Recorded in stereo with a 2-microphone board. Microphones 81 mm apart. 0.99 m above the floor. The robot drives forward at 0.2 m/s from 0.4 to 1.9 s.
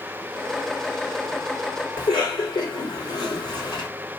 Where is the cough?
75° left (ahead or behind), 3 m.